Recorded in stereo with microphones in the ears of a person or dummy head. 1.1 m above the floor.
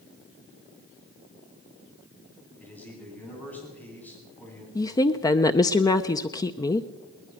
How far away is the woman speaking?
About 0.6 m.